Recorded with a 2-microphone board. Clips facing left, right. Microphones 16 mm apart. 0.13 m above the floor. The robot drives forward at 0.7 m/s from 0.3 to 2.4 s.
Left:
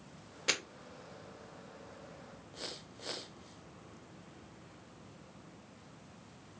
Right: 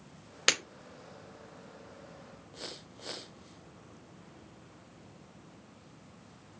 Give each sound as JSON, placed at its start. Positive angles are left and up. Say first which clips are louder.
{"t": 0.5, "sound": "breaking glass", "louder": "right 6 dB", "side_deg": -60, "distance_m": 3.5}